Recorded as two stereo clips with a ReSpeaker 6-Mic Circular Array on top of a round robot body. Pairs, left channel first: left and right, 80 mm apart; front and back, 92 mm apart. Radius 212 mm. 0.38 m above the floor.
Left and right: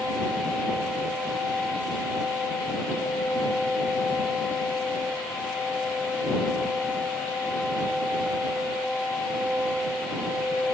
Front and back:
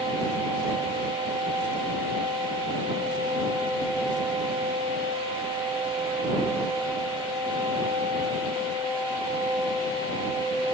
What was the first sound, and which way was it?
Only background noise.